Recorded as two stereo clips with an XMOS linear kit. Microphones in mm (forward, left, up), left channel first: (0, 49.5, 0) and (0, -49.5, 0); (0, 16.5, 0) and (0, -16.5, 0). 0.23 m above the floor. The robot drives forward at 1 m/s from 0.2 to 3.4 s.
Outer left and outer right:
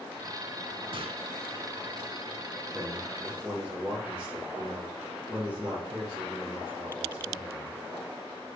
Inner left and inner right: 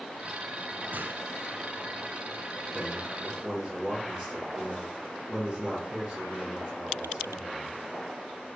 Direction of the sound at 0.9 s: 60° right (ahead or behind).